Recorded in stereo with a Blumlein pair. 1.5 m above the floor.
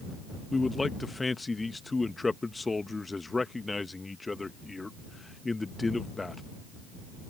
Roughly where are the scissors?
I don't hear scissors.